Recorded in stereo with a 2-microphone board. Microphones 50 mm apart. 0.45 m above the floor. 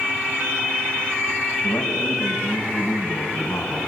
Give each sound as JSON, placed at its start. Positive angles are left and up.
{"t": 1.6, "sound": "a man speaking", "side_deg": 65, "distance_m": 3.0}